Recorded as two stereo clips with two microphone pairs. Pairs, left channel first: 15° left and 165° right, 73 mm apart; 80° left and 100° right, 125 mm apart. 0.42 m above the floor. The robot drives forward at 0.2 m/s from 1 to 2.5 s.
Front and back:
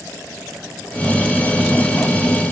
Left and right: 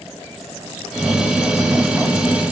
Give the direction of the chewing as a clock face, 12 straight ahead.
I don't hear chewing.